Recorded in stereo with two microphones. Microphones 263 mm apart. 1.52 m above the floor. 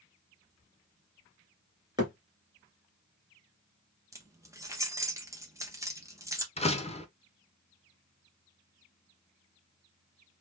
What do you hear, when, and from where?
2.0 s a thud: 15° right (ahead or behind), 1.8 m
4.1 s keys jangling: 10° right (ahead or behind), 0.7 m
6.6 s a door slam: 25° left (ahead or behind), 0.5 m